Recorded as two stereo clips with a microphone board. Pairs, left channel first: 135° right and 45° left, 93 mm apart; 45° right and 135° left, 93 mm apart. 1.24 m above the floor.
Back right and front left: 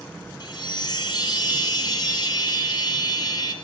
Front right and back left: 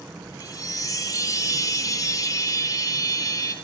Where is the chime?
95° right, 1.8 m.